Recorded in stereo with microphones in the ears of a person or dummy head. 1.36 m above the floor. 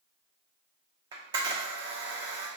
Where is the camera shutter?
25° right (ahead or behind), 0.9 m.